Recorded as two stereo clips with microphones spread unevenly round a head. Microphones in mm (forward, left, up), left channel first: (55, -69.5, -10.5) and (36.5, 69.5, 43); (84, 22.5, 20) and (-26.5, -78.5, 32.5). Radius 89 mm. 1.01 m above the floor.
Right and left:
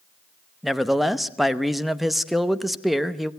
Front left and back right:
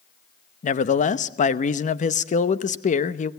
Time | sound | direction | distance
0.6 | a man speaking | 5° left | 0.9 m